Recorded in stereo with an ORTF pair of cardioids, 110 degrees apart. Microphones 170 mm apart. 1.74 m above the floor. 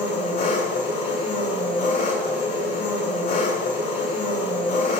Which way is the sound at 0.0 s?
60° left.